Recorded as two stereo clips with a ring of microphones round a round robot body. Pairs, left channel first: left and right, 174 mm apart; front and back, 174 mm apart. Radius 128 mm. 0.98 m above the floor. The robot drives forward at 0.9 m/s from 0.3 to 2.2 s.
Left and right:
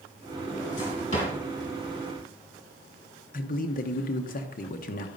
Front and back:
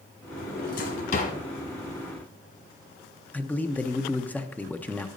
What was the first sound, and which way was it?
A drawer, 25° left.